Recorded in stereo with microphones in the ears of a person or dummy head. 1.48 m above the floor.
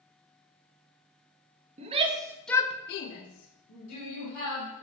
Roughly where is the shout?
Right.